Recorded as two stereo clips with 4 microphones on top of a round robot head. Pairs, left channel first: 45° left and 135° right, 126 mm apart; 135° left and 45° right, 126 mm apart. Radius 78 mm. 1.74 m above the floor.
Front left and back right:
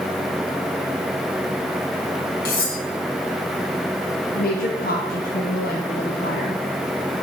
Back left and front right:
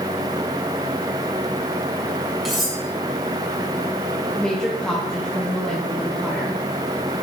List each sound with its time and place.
2.5 s cutlery clinking: 45° left, 1.6 m
4.3 s a woman speaking: 50° left, 0.8 m